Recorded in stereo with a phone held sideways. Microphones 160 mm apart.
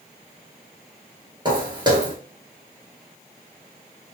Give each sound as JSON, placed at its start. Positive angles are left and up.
{"t": 1.4, "sound": "footsteps", "side_deg": -30, "distance_m": 1.4}